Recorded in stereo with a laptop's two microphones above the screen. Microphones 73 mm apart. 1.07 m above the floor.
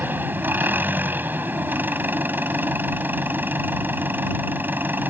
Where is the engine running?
25° right (ahead or behind).